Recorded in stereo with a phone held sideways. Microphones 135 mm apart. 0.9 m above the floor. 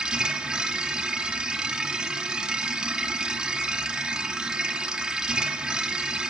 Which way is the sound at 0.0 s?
5° right (ahead or behind).